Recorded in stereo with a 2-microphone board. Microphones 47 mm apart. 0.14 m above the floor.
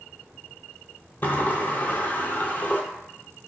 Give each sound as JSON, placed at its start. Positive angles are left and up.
{"t": 1.2, "sound": "a sliding door", "side_deg": 40, "distance_m": 0.5}